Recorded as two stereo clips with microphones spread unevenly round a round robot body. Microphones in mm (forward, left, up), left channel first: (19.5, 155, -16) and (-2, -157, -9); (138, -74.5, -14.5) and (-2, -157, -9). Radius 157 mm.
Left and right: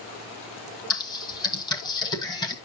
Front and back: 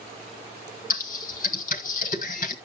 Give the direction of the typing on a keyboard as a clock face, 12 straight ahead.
12 o'clock.